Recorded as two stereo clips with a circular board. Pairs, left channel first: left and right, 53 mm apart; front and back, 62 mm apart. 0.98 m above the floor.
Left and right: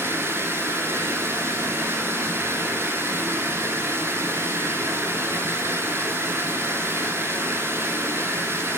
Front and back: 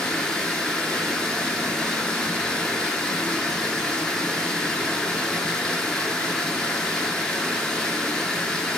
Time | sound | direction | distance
0.0 | running water | 80° right | 1.3 m